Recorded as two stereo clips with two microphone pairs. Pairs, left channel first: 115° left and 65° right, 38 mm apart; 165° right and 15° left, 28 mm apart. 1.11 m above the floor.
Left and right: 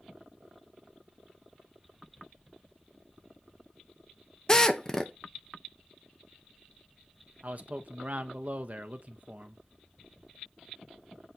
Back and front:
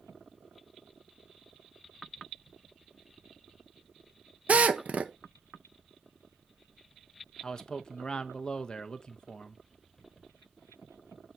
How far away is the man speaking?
About 0.7 m.